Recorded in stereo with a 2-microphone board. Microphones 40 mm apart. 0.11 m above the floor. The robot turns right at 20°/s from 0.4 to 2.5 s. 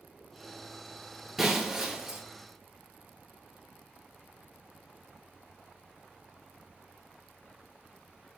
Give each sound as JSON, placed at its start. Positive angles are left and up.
{"t": 1.4, "sound": "breaking glass", "side_deg": -5, "distance_m": 0.7}